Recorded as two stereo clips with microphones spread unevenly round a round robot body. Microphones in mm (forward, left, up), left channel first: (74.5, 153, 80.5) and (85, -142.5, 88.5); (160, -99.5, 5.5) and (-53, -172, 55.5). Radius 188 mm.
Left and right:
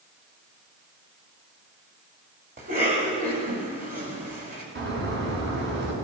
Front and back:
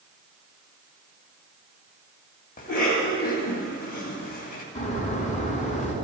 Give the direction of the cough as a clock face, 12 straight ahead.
1 o'clock.